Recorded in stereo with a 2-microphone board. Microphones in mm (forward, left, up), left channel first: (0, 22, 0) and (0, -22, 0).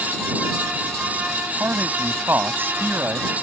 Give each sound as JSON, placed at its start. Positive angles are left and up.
{"t": 1.6, "sound": "a man speaking", "side_deg": -60}